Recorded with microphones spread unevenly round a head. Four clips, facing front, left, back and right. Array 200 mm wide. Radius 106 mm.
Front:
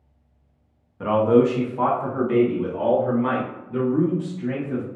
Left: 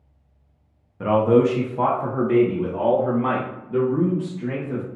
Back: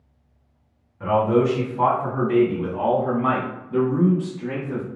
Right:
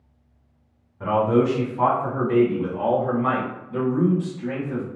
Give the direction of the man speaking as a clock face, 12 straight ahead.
10 o'clock.